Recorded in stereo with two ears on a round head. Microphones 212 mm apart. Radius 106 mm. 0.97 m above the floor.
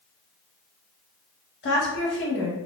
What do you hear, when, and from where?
1.6 s a woman speaking: 45° left (ahead or behind), 1.2 m